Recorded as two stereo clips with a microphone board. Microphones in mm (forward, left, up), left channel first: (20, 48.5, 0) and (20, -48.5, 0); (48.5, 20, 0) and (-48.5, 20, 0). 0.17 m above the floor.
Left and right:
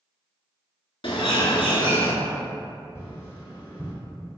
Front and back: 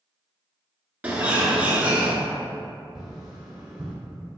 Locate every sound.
1.0 s a bird: 105° left, 0.6 m
3.0 s tapping: 100° left, 1.3 m